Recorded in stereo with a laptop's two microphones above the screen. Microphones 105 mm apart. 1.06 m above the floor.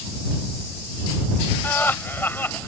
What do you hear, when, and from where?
1.6 s laughter: 20° left (ahead or behind)